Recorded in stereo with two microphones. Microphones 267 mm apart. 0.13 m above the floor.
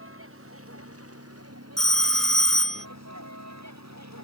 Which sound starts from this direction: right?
A vehicle, at 0.0 s.